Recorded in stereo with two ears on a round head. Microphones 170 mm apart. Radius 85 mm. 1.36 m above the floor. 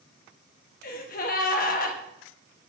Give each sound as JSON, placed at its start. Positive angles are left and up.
{"t": 0.8, "sound": "a gasp", "side_deg": 45, "distance_m": 0.9}